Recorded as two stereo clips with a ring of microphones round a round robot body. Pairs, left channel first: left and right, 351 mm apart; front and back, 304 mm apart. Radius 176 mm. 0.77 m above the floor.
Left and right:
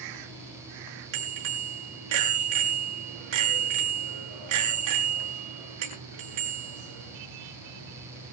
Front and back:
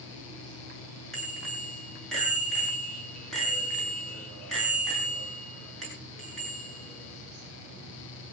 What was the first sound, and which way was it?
A bicycle bell, 90° right.